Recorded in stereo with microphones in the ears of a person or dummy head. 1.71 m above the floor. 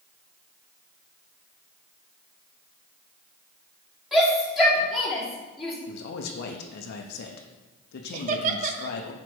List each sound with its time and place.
4.1 s a shout: centre (ahead or behind), 3.5 m
5.9 s a man speaking: 65° left (ahead or behind), 0.8 m
8.1 s laughter: 40° right (ahead or behind), 0.9 m